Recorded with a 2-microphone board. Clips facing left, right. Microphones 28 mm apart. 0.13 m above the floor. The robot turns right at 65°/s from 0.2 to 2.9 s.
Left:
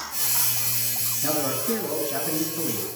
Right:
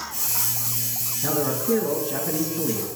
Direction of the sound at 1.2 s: 15° right (ahead or behind).